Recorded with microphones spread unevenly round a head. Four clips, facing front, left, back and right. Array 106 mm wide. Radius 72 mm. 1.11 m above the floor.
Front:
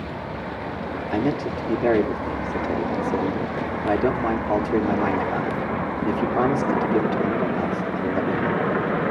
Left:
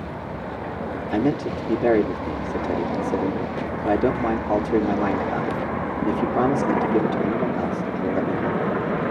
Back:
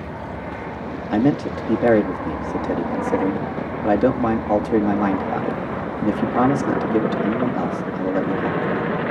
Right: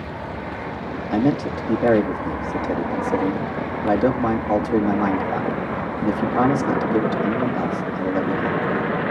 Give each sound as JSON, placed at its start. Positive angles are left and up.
{"t": 1.1, "sound": "a man speaking", "azimuth_deg": -160, "distance_m": 2.5}